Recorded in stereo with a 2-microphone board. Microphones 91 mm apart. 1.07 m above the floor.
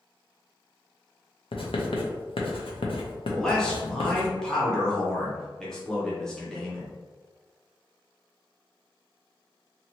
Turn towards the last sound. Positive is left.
turn(degrees=5)  # may be behind; listen again after turning